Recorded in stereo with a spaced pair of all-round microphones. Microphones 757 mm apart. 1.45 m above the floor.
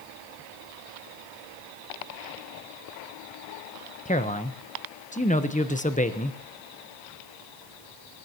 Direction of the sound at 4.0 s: 10° left (ahead or behind).